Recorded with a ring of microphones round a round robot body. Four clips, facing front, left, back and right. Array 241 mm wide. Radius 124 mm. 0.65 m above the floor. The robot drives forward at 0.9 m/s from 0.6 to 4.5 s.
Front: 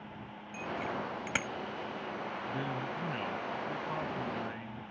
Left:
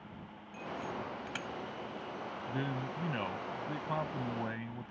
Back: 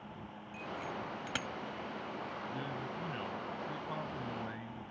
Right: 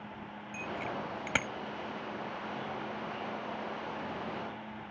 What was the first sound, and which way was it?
A bicycle bell, 65° right.